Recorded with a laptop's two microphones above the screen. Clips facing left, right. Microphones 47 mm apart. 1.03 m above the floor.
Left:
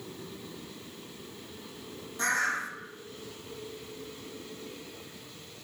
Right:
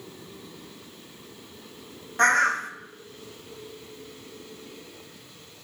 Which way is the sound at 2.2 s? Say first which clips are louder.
Right 8 dB; 55° right (ahead or behind).